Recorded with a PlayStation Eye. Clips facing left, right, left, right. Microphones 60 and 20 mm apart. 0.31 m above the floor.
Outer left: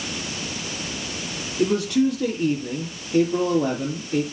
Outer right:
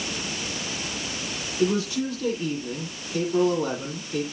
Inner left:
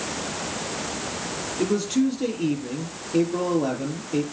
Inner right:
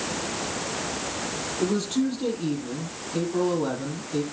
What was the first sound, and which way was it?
A man speaking, 55° left (ahead or behind).